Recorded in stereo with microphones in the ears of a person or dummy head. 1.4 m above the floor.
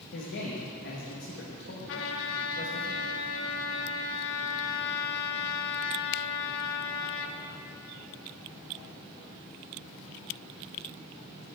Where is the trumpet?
75° left (ahead or behind), 0.9 m.